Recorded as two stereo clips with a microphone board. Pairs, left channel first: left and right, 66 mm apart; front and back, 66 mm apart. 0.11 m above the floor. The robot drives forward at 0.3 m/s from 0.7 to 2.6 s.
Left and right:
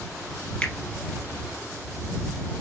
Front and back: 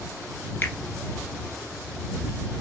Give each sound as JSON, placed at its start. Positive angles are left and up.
{"t": 0.6, "sound": "a finger snap", "azimuth_deg": 35, "distance_m": 1.4}